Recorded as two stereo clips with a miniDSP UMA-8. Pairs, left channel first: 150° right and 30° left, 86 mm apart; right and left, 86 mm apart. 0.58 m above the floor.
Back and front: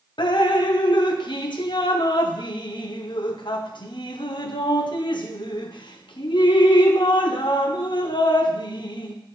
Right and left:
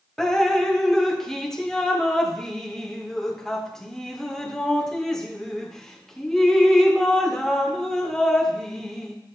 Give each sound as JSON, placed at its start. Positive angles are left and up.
{"t": 0.2, "sound": "dripping", "azimuth_deg": -175, "distance_m": 0.6}